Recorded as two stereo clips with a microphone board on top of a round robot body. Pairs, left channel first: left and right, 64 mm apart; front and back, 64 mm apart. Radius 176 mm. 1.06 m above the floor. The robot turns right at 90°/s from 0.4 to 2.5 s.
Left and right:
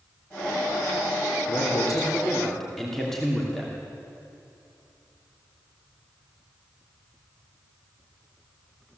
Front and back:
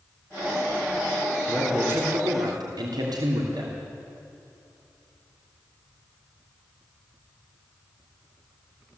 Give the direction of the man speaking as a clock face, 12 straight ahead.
9 o'clock.